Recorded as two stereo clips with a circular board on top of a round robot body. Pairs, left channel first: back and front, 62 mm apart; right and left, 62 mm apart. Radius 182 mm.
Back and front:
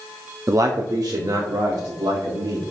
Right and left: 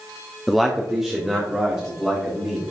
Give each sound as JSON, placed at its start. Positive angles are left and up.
{"t": 0.5, "sound": "a man speaking", "azimuth_deg": 0, "distance_m": 1.0}